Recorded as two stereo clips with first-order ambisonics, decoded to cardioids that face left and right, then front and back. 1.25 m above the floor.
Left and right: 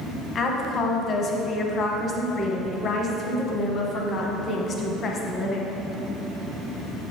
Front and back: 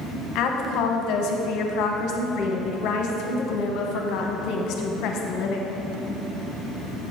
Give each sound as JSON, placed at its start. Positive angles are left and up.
{"t": 0.3, "sound": "a woman speaking", "azimuth_deg": 30, "distance_m": 1.1}